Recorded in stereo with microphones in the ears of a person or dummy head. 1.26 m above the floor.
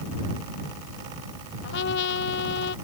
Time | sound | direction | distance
1.6 | a trumpet | 65° left (ahead or behind) | ?